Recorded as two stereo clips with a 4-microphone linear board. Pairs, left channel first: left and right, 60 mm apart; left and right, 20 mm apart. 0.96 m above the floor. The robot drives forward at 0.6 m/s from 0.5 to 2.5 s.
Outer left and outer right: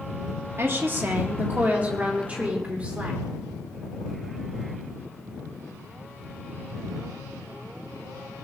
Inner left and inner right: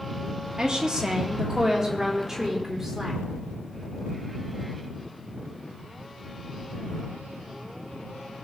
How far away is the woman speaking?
About 1.4 m.